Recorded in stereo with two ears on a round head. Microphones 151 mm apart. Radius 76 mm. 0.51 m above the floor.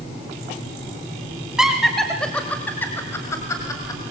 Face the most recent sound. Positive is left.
turn(degrees=20)  # may be behind; listen again after turning